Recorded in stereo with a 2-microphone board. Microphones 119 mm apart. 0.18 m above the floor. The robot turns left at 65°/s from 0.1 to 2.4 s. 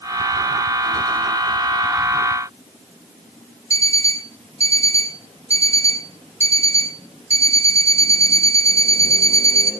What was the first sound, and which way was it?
An alarm clock, 55° right (ahead or behind).